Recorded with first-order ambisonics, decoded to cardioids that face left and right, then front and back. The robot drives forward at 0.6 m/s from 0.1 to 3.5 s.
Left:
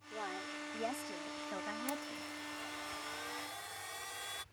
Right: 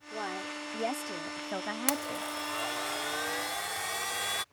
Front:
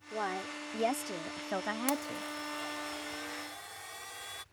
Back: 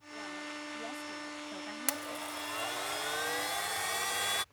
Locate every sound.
0.1 s a woman speaking: 20° right; by 2.2 s 45° right
1.9 s a blender: 105° right; by 4.4 s 135° right